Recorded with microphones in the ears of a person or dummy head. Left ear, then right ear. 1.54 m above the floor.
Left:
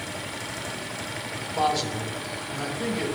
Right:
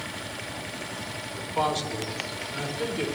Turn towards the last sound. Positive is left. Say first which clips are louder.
# left 2 dB
turn(degrees=-40)  # may be behind; listen again after turning